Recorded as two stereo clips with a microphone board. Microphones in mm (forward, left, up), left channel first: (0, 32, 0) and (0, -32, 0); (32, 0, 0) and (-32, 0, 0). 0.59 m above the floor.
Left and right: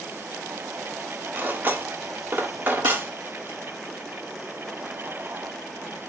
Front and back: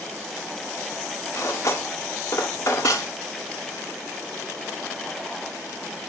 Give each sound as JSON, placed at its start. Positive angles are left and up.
{"t": 1.3, "sound": "cutlery clinking", "azimuth_deg": -35, "distance_m": 0.7}